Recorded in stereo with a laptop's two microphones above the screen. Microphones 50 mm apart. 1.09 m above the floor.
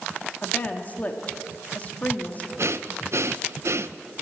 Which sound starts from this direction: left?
A woman speaking, at 0.4 s.